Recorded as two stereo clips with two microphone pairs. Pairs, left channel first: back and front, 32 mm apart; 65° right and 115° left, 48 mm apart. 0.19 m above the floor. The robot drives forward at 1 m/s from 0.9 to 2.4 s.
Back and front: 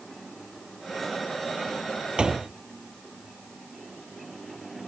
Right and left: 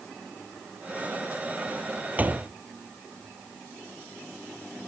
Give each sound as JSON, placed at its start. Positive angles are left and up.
{"t": 2.2, "sound": "a door slam", "azimuth_deg": 60}